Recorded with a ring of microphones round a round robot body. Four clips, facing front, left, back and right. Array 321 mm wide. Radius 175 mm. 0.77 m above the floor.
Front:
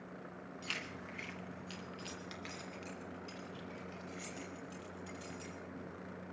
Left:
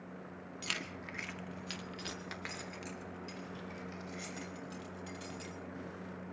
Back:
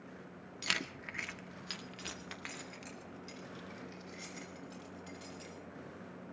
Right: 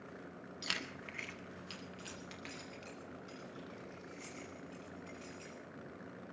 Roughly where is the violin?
No violin in this recording.